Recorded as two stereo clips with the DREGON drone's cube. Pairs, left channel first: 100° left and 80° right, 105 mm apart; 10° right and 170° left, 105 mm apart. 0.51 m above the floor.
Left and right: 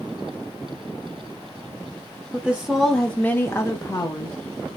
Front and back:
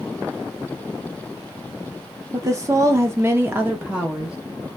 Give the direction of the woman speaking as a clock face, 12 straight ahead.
5 o'clock.